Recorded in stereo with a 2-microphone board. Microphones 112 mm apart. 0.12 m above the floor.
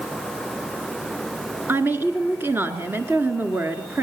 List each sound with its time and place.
1.7 s a woman speaking: 20° right (ahead or behind), 1.6 m